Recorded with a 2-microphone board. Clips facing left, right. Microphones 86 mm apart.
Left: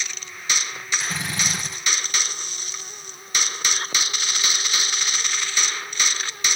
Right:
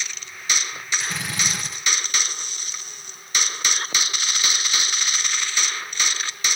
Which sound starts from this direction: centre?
A drill, at 1.0 s.